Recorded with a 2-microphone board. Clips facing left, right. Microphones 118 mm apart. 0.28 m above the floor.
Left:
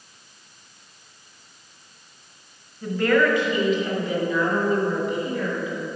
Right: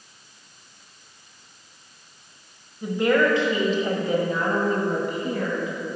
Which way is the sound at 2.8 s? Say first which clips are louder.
Even; 15° right (ahead or behind).